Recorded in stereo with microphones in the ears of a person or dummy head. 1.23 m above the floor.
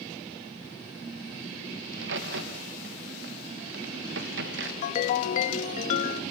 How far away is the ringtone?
About 1.4 m.